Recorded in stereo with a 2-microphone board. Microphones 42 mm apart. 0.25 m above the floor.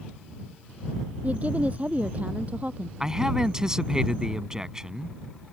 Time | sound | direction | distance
1.2 | a woman speaking | 35° right (ahead or behind) | ?
3.0 | a man speaking | 15° right (ahead or behind) | ?